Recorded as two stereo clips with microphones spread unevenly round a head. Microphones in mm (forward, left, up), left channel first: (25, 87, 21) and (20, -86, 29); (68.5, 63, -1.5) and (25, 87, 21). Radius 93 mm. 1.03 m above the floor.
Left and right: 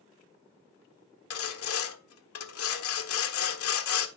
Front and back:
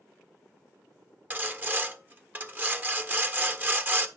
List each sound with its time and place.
1.3 s sawing: 105° left, 1.4 m